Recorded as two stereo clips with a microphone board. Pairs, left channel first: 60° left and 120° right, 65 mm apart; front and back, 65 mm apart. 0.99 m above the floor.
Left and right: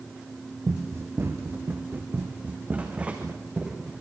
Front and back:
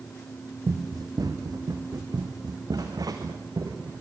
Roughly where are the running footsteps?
Behind.